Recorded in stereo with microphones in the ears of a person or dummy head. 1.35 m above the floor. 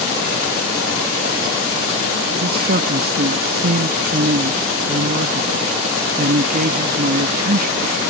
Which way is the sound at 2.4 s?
45° right (ahead or behind).